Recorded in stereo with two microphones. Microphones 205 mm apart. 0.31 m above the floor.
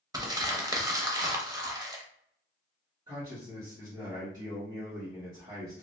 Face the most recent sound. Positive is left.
turn(degrees=-20)  # may be behind; listen again after turning